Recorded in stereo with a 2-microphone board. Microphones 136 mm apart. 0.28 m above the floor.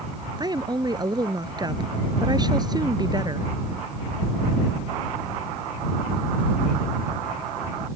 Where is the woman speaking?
30° right (ahead or behind).